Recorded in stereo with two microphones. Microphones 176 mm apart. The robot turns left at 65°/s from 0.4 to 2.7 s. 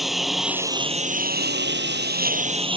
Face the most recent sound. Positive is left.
turn(degrees=-150)